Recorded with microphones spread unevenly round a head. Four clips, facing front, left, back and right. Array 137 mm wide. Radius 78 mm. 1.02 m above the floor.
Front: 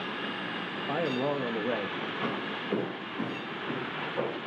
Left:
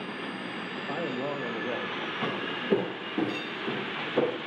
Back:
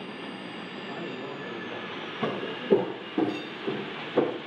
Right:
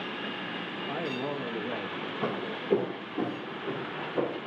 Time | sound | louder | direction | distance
0.8 | a man speaking | left 1 dB, front 8 dB | 30° left | 1.1 m
2.2 | footsteps | right 1 dB, back 7 dB | 165° right | 1.3 m